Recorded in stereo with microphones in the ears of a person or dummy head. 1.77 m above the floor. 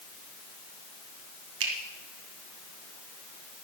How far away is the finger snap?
About 2 m.